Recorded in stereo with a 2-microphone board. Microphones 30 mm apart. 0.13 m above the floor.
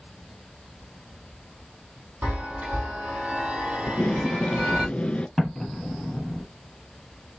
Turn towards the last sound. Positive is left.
turn(degrees=10)  # may be behind; listen again after turning